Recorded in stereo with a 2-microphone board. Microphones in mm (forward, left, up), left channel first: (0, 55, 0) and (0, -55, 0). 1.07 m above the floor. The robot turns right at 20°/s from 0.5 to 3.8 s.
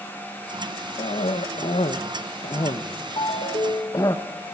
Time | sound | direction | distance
1.0 | a cough | 70° left (ahead or behind) | 0.9 m
3.2 | a ringtone | 50° left (ahead or behind) | 1.3 m